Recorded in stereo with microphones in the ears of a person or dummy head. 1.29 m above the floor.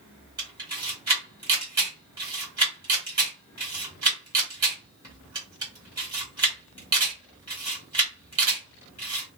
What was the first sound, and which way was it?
A camera shutter, 15° right (ahead or behind).